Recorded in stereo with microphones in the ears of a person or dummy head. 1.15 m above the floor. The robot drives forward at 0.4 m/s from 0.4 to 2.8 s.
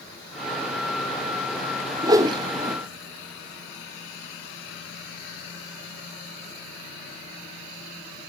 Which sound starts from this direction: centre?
A whoosh, at 2.0 s.